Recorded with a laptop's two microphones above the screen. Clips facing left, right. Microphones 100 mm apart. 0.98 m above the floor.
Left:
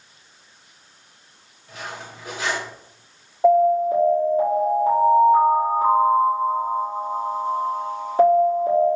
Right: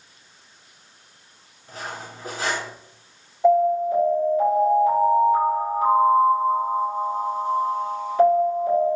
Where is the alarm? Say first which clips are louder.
Left 2 dB; 30° left (ahead or behind), 1.6 m.